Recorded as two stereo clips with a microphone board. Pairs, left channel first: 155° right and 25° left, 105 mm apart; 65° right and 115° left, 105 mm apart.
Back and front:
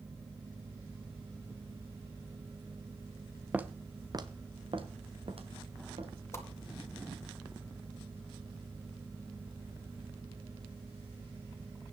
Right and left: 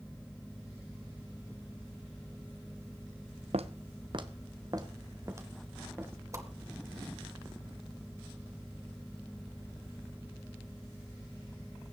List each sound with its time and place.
3.5 s footsteps: 100° left, 1.1 m; by 6.1 s 45° left, 3.5 m
6.3 s a whoosh: 155° left, 2 m